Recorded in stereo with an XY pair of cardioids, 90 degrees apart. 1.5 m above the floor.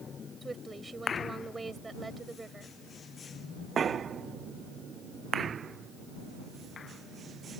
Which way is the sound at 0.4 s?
25° right.